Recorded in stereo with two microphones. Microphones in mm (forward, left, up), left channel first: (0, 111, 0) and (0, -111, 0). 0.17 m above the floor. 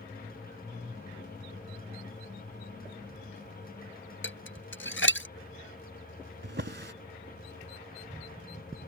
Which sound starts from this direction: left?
Dishes clattering, at 4.2 s.